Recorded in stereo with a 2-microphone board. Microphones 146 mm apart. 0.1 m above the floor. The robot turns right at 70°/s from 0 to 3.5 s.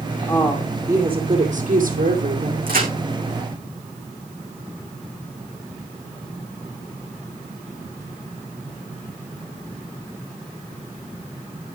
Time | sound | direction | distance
0.3 | a woman speaking | 150° left | 4 m
2.7 | a crack | 80° right | 7.5 m